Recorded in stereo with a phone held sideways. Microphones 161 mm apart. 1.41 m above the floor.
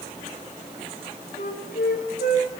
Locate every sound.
1.4 s a flute: 60° left (ahead or behind), 4 m